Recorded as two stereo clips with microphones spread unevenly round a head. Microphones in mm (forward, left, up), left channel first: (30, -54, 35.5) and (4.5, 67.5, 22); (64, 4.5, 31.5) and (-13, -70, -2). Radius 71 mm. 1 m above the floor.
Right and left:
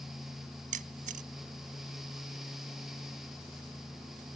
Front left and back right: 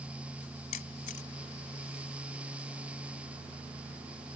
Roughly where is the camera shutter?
Left.